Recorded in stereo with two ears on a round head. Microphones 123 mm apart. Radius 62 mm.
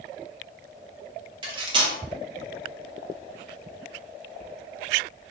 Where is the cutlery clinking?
35° right (ahead or behind), 0.7 m.